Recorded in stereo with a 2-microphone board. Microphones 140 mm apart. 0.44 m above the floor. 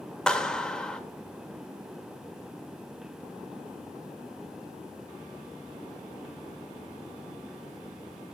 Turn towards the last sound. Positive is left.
turn(degrees=5)  # may be behind; listen again after turning